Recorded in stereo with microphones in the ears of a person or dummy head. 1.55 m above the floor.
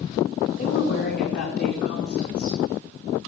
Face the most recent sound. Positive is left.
turn(degrees=50)  # may be behind; listen again after turning